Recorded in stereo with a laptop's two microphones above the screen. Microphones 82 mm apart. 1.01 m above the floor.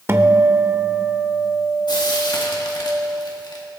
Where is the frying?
60° left (ahead or behind), 2.5 m.